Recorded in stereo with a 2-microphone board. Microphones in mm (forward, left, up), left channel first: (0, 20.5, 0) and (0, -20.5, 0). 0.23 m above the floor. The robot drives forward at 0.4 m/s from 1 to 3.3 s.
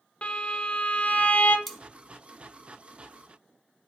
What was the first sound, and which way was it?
A violin, 30° left (ahead or behind).